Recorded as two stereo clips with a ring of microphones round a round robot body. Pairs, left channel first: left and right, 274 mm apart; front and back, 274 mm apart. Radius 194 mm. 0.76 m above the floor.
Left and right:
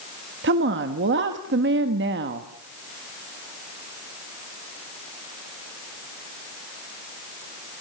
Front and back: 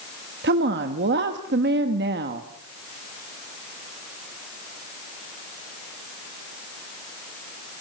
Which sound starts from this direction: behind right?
A woman speaking, at 0.4 s.